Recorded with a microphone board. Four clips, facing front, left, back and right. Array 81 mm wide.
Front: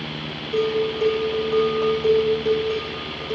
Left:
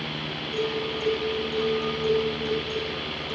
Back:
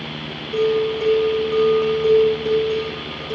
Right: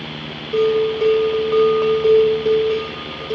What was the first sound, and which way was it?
A bell, 90° right.